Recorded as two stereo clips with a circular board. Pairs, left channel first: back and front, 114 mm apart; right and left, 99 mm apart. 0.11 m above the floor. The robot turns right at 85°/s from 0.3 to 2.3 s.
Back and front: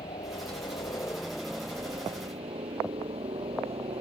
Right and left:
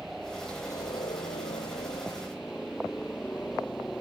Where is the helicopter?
175° left; by 4.0 s 15° right.